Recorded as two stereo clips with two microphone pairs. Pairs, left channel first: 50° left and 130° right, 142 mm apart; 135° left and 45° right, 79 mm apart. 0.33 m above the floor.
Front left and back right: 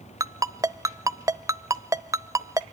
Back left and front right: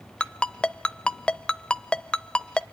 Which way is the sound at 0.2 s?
170° right.